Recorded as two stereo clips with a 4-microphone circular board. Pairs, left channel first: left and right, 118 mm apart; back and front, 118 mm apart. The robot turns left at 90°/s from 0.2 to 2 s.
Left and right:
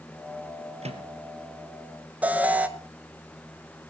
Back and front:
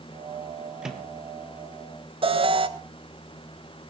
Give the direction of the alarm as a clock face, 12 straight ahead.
1 o'clock.